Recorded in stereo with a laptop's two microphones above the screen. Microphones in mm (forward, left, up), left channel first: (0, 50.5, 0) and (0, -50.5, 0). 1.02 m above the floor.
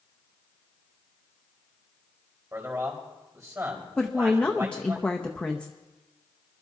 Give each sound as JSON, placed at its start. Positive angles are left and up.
{"t": 2.5, "sound": "a man speaking", "side_deg": -30, "distance_m": 4.0}
{"t": 4.0, "sound": "a woman speaking", "side_deg": 10, "distance_m": 0.7}